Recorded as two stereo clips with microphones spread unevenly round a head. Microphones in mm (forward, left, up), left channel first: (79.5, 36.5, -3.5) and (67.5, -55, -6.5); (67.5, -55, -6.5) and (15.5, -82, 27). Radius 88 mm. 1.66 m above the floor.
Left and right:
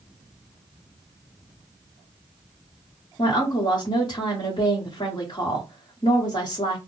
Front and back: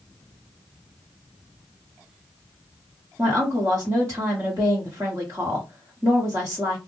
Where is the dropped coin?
I don't hear a dropped coin.